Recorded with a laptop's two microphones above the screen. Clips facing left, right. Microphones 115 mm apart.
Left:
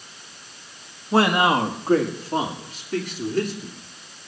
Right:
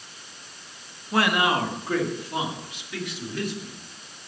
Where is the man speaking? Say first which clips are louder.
Left 4 dB; 30° left (ahead or behind), 1.4 m; by 3.8 s 45° left (ahead or behind), 3 m.